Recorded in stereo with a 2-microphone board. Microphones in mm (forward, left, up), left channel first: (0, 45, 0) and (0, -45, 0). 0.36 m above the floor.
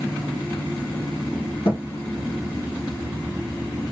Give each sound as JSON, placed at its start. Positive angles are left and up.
{"t": 1.6, "sound": "a thud", "side_deg": 85, "distance_m": 1.9}